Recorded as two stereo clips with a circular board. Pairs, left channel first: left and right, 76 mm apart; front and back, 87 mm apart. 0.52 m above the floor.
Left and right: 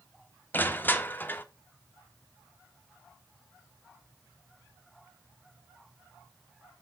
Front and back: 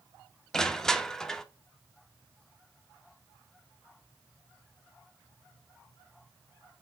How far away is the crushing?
About 1.0 m.